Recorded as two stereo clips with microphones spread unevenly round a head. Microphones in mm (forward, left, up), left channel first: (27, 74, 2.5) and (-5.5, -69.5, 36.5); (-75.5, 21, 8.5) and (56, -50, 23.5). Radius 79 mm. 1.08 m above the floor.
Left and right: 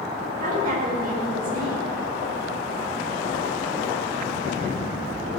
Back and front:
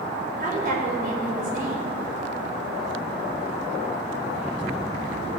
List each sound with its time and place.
0.4 s a woman speaking: 65° right, 5 m